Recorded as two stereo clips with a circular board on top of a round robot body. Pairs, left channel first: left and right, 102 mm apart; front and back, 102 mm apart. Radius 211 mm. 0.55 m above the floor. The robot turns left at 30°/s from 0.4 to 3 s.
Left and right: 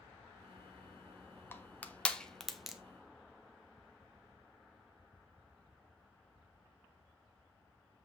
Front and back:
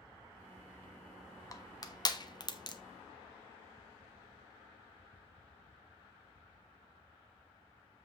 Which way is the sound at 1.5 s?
30° left.